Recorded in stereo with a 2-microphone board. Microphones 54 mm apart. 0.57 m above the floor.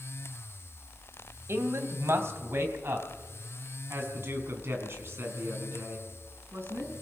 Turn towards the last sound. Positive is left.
turn(degrees=-40)  # may be behind; listen again after turning